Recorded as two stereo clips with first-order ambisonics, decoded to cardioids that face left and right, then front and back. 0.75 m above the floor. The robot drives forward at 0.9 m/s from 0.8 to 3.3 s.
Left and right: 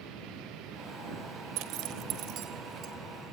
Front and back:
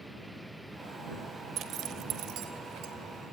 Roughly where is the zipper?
Behind right.